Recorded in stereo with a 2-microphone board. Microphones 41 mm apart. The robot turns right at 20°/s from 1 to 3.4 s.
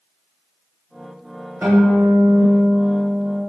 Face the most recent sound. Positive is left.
turn(degrees=-10)